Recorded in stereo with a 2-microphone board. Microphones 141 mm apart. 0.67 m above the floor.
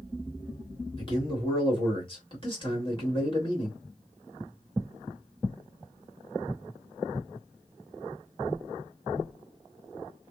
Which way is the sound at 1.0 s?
35° left (ahead or behind).